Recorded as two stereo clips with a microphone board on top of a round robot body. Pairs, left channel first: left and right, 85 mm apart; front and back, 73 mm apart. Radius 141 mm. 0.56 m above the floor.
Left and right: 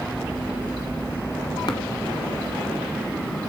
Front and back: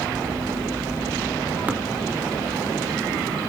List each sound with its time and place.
1.7 s tapping: 115° left, 1.8 m